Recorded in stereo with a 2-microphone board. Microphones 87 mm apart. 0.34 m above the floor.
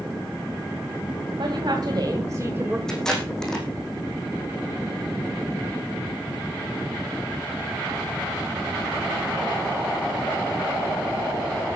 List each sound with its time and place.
1.4 s a woman speaking: 60° right (ahead or behind), 2.5 m; by 2.8 s 20° right (ahead or behind), 1.4 m
2.9 s tape being pulled: 5° left (ahead or behind), 4 m